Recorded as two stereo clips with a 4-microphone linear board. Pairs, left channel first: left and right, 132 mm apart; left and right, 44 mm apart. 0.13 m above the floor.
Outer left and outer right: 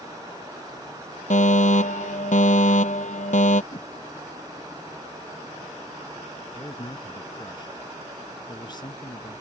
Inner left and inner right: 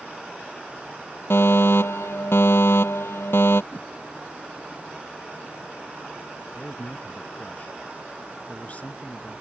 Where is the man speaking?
35° left (ahead or behind).